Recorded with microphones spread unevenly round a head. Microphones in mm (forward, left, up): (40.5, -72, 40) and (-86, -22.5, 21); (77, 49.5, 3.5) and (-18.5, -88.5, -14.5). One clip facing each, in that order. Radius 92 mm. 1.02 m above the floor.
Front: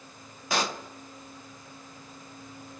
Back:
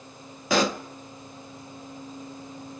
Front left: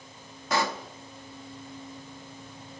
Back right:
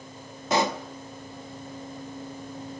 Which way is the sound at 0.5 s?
160° left.